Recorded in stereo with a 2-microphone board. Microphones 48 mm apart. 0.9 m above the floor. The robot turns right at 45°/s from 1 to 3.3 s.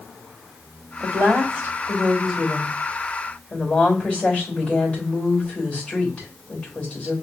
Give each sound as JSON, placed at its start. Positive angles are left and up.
{"t": 1.0, "sound": "a woman speaking", "azimuth_deg": -80, "distance_m": 3.5}